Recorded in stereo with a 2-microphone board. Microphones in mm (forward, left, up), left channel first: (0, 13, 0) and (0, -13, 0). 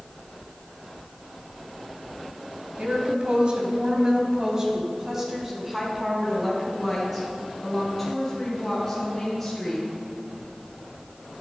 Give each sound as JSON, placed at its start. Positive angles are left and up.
{"t": 2.8, "sound": "a woman speaking", "side_deg": -50, "distance_m": 2.5}